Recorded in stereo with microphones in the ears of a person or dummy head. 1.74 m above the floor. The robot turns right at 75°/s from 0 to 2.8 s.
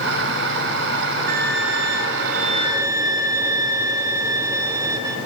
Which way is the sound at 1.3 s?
130° right.